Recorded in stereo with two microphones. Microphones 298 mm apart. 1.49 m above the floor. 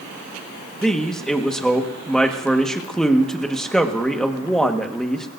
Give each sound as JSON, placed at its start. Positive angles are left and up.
{"t": 0.8, "sound": "a man speaking", "side_deg": 0, "distance_m": 1.5}